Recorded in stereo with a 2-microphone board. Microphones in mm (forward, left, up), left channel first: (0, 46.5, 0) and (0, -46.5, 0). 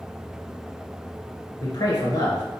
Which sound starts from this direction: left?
A man speaking, at 1.6 s.